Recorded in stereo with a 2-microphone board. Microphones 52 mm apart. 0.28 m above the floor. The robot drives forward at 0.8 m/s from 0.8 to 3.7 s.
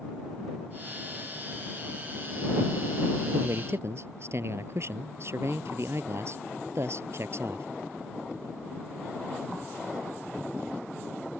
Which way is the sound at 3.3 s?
55° right (ahead or behind).